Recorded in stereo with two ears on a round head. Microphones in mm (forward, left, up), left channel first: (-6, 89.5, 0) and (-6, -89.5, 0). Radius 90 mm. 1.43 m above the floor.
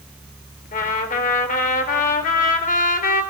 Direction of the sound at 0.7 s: 45° left (ahead or behind).